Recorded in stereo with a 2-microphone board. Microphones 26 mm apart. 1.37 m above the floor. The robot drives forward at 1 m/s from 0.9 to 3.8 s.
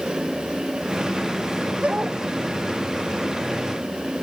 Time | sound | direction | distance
1.8 | a dog barking | 45° right (ahead or behind) | ?